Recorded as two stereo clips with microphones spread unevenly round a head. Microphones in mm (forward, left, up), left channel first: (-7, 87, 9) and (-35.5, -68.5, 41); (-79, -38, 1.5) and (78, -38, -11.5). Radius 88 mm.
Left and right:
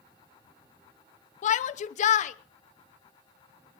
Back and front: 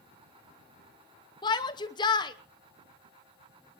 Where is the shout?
125° left, 0.8 m.